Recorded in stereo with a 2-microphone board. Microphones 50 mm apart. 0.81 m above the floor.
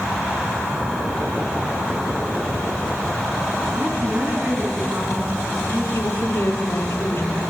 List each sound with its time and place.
3.7 s a woman speaking: 85° right, 10 m
5.9 s a woman speaking: 60° left (ahead or behind), 1.9 m